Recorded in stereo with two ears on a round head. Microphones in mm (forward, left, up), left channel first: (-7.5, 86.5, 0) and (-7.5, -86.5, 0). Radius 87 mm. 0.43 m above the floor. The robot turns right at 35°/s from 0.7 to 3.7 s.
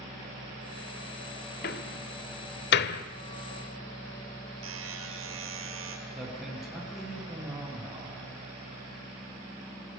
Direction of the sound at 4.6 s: 75° right (ahead or behind).